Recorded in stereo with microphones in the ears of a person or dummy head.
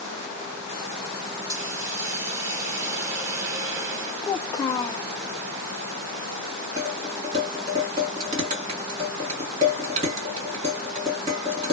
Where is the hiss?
15° right (ahead or behind), 1.0 m.